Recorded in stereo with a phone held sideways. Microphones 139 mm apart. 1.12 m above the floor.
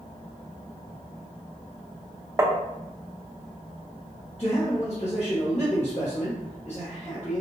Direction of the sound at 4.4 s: 50° left (ahead or behind).